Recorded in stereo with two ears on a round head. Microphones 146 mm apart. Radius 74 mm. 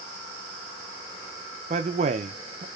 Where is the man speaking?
40° right (ahead or behind), 0.5 m.